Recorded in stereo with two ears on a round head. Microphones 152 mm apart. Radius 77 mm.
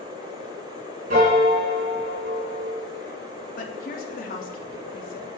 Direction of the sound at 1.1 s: 50° right (ahead or behind).